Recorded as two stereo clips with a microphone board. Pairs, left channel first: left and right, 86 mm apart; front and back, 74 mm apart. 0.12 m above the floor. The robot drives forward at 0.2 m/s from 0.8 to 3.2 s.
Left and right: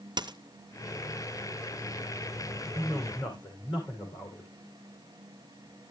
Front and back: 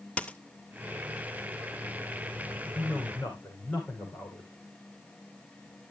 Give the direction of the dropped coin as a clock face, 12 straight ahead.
2 o'clock.